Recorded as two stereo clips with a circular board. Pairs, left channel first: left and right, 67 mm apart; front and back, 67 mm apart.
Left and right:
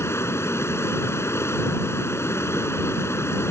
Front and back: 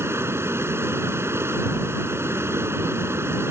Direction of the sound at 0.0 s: 135° left.